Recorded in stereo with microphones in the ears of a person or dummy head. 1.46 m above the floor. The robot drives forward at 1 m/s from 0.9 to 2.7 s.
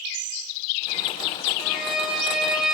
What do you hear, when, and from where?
1.6 s a violin: 5° right (ahead or behind), 3 m